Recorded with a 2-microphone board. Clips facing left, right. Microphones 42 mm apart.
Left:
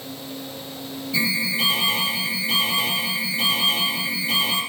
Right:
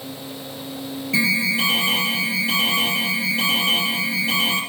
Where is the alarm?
70° right (ahead or behind), 5.5 m.